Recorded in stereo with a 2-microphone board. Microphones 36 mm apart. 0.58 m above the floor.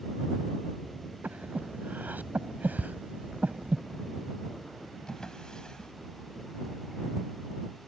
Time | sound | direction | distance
1.2 | breathing | 60° right (ahead or behind) | ?
2.8 | ticking | 35° left (ahead or behind) | ?
5.1 | a drawer | 25° left (ahead or behind) | ?